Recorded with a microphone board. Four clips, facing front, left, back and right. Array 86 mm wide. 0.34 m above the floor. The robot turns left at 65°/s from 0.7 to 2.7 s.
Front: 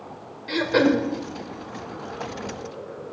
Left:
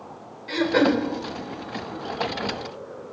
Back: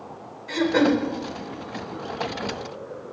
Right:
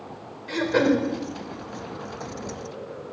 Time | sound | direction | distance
0.5 | throat clearing | 10° left | 1.1 m